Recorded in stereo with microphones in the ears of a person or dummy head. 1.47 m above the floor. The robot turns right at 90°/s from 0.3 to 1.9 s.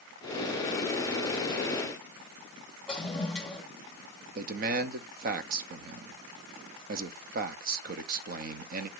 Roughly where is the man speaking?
Right.